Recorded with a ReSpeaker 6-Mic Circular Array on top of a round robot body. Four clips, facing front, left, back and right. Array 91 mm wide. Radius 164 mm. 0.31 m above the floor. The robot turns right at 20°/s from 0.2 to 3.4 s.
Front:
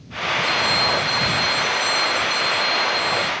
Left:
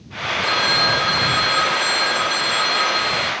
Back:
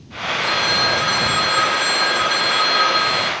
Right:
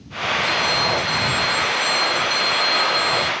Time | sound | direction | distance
0.4 | a phone ringing | 120° left | ?